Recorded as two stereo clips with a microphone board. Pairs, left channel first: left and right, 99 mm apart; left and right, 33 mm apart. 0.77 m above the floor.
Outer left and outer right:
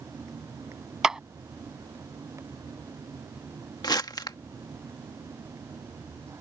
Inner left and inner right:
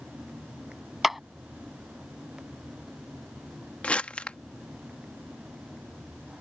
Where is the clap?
10° right (ahead or behind).